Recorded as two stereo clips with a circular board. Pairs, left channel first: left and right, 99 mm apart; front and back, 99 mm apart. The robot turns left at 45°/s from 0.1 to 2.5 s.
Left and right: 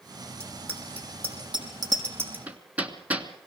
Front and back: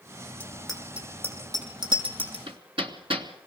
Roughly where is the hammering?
Behind.